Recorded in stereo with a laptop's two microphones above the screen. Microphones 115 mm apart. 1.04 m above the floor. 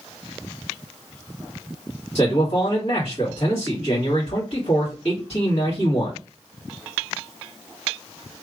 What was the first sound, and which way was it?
A man speaking, 65° left (ahead or behind).